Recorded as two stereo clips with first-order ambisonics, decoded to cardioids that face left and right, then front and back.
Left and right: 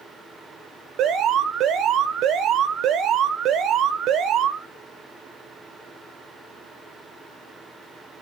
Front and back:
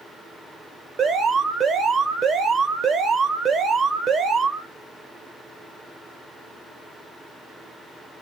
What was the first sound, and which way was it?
An alarm, 120° right.